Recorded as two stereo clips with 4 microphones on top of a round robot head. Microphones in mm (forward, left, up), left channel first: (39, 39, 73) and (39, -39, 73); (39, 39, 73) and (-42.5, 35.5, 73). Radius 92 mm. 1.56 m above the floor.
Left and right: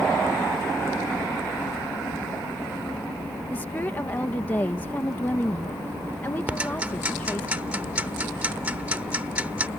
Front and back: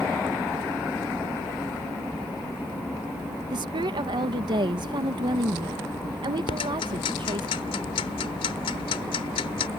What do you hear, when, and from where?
3.5 s a woman speaking: 160° left
6.5 s ticking: 15° right